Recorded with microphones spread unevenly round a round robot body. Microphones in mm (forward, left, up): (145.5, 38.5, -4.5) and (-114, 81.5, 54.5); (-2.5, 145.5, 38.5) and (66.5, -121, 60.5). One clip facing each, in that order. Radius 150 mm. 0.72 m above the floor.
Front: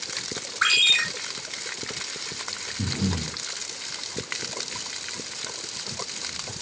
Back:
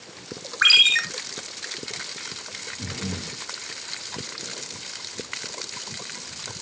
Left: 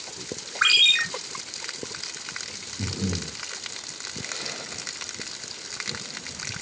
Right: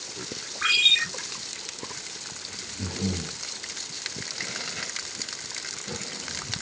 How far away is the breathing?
About 3 m.